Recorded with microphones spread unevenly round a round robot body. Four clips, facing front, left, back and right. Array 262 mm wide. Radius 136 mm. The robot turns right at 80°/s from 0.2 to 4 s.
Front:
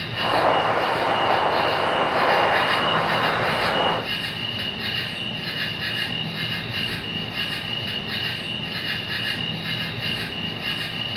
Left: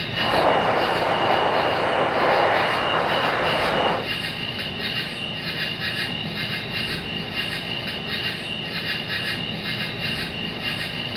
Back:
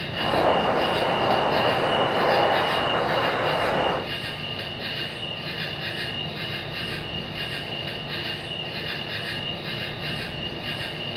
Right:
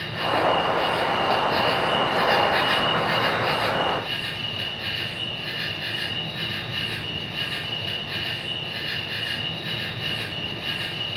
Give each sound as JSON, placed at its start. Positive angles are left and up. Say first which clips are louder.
{"t": 0.0, "sound": "an insect", "louder": "left 2 dB, front 1 dB", "azimuth_deg": 95, "distance_m": 2.5}